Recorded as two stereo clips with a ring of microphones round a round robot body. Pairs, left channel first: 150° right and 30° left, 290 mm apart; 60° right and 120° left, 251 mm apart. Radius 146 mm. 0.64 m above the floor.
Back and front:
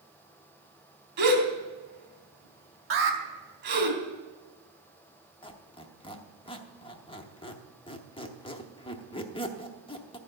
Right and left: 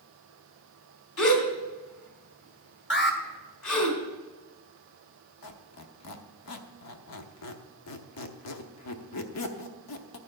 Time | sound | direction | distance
1.2 | a gasp | 25° right | 3 m
2.9 | an alarm | 15° right | 2 m
5.4 | a squeak | 80° right | 0.9 m